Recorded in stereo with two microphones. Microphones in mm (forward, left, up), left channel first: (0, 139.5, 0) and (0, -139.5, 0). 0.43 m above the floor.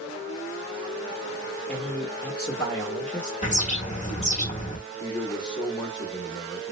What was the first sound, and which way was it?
A man speaking, 5° left (ahead or behind).